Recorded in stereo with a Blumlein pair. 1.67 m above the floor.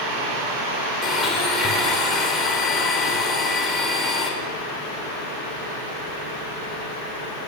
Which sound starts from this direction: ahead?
A blender, at 1.0 s.